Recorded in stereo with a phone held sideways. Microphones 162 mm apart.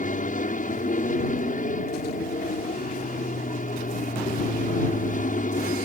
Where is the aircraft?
55° left (ahead or behind).